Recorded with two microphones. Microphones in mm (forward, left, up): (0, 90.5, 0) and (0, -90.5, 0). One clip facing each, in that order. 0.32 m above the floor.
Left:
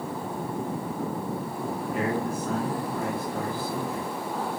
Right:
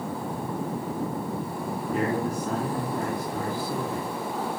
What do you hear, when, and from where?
1.9 s a man speaking: 40° right (ahead or behind), 3.5 m